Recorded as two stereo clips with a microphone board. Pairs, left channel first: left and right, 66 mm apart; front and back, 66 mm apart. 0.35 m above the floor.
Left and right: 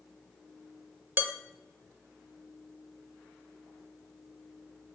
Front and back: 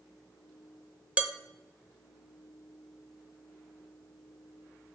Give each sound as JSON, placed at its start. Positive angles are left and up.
{"t": 1.2, "sound": "dishes clattering", "azimuth_deg": -125, "distance_m": 0.7}